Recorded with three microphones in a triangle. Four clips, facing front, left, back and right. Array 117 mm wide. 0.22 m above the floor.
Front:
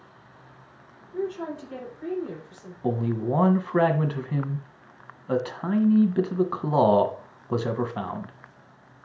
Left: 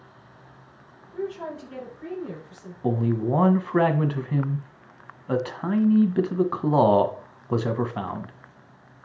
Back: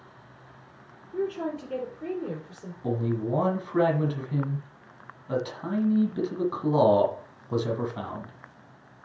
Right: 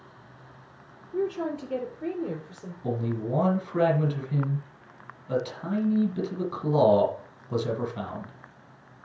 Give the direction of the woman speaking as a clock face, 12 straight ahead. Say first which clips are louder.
Right 3 dB, back 1 dB; 4 o'clock.